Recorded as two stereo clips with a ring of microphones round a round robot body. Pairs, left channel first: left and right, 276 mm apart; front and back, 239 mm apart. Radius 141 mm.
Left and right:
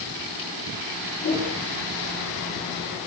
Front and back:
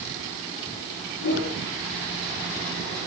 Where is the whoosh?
30° left, 9 m.